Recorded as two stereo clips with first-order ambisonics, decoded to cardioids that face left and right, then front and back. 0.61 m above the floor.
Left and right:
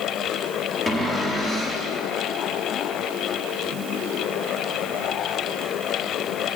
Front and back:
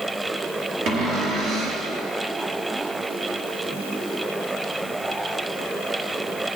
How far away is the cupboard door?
About 1.1 m.